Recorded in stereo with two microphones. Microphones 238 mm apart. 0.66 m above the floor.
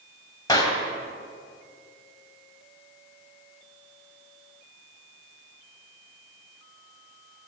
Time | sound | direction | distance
0.5 | a clap | 15° left (ahead or behind) | 3.5 m